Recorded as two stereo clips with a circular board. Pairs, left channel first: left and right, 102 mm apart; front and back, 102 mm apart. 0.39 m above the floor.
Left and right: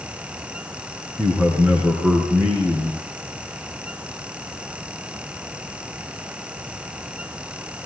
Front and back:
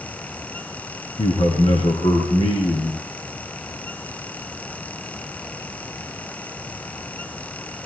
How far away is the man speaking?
About 5 m.